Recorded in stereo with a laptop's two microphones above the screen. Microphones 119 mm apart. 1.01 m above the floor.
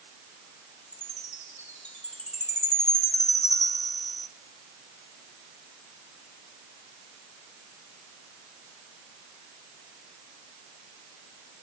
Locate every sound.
0.9 s a chime: 70° left (ahead or behind), 2.5 m